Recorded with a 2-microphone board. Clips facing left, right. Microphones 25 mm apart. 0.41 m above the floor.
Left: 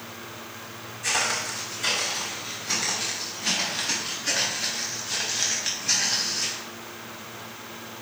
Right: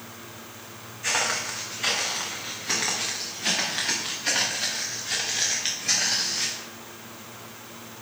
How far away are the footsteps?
About 2.5 m.